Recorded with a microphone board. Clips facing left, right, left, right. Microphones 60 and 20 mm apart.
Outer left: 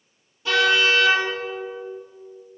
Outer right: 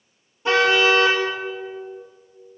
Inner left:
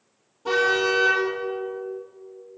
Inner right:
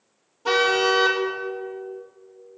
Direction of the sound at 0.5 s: 30° right (ahead or behind).